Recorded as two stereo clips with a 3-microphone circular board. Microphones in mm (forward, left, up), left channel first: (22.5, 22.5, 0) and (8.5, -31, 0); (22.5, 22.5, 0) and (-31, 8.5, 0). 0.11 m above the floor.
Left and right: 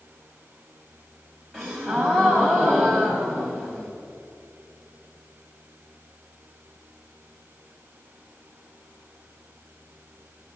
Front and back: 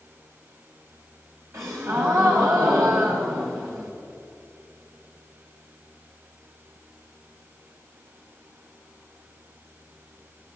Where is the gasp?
155° left, 2.5 m.